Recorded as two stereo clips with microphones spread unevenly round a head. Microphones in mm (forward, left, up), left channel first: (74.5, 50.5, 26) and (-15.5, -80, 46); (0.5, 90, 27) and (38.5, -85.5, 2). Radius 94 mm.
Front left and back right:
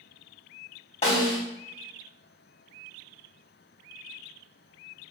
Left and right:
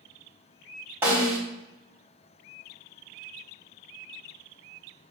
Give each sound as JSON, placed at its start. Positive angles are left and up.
{"t": 1.0, "sound": "a snare drum", "azimuth_deg": 5, "distance_m": 3.0}